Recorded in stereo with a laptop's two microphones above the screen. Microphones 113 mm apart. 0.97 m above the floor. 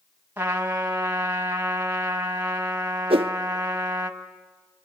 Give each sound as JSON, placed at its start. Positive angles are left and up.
{"t": 0.4, "sound": "a trumpet", "side_deg": -15, "distance_m": 1.4}
{"t": 3.1, "sound": "a whoosh", "side_deg": -55, "distance_m": 0.5}